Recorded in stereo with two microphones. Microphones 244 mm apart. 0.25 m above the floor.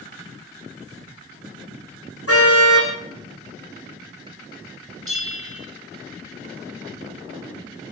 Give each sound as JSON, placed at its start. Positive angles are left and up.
{"t": 2.3, "sound": "a car horn", "side_deg": 70, "distance_m": 7.5}
{"t": 5.1, "sound": "a bell", "side_deg": 65, "distance_m": 4.0}